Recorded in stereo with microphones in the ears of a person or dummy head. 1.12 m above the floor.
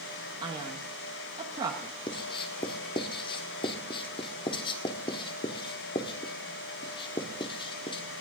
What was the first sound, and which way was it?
A man speaking, 25° right (ahead or behind).